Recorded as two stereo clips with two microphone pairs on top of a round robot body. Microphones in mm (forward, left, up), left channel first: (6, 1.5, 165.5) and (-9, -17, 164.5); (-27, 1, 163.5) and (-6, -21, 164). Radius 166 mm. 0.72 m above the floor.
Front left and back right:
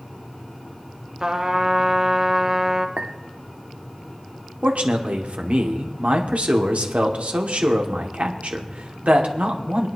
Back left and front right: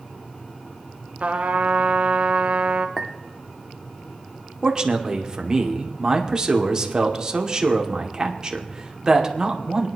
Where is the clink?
130° right, 0.9 m.